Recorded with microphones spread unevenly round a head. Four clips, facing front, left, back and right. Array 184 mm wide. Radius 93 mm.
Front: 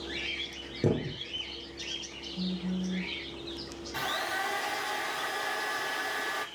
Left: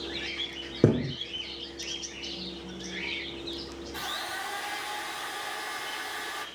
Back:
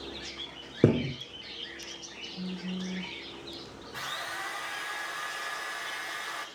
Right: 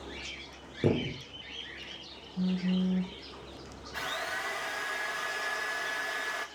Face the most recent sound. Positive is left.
turn(degrees=0)